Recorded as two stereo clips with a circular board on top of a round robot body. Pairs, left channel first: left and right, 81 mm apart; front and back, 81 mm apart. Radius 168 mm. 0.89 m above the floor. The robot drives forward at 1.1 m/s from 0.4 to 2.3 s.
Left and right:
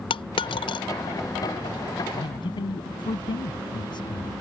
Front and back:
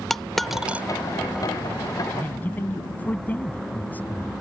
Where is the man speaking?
70° left.